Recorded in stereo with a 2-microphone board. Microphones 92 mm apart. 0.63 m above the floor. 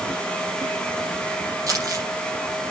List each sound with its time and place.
1.7 s crumpling: 40° right (ahead or behind), 4.5 m